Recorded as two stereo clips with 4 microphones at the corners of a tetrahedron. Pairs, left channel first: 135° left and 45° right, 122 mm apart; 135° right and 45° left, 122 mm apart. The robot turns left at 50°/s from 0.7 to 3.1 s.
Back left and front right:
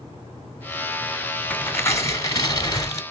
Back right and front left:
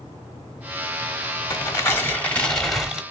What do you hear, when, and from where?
1.5 s tearing paper: 165° right, 1.1 m; by 3.0 s 120° left, 1.1 m